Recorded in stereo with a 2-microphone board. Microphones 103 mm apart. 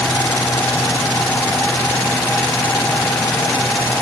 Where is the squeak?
I don't hear a squeak.